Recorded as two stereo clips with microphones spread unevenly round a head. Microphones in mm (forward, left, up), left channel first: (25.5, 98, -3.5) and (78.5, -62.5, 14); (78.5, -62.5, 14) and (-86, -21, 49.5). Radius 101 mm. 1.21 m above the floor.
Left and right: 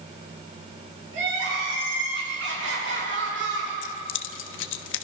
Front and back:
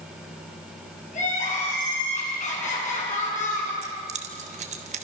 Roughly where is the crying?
Ahead right.